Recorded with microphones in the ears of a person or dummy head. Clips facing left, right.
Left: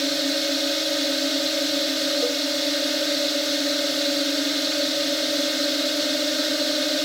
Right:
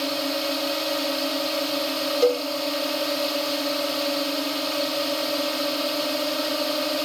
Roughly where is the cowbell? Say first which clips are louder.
Right 6 dB; right.